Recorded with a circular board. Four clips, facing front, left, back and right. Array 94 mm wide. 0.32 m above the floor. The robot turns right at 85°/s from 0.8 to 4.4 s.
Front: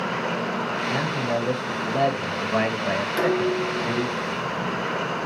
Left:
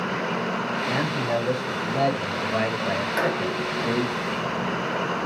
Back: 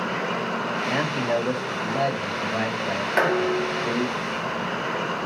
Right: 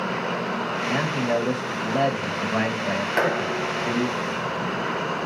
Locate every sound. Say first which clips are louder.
0.9 s a man speaking: right 3 dB, back 3 dB; 165° right, 1.4 m; by 4.2 s 115° left, 1.4 m
3.2 s dishes clattering: right 1 dB, back 2 dB; 155° right, 1.2 m; by 4.9 s 50° right, 1.2 m